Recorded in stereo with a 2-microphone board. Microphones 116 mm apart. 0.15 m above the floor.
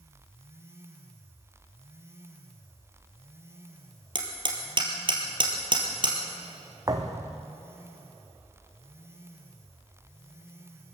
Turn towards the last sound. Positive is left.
turn(degrees=-30)  # may be behind; listen again after turning